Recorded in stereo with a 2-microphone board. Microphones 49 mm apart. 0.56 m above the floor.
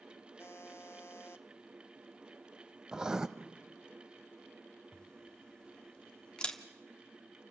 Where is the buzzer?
55° left (ahead or behind), 0.7 m.